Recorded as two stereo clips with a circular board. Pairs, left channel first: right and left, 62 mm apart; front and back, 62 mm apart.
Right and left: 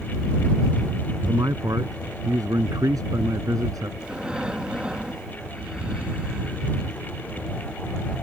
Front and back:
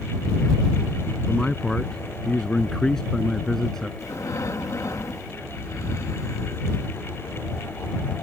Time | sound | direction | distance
1.3 | a man speaking | 80° left | ?
4.0 | breathing | 15° left | ?